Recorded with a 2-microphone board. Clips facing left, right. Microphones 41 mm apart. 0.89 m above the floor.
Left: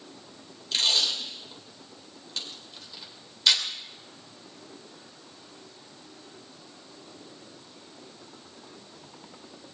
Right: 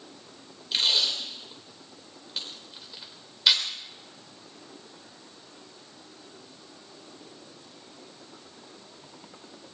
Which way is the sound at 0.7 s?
10° right (ahead or behind).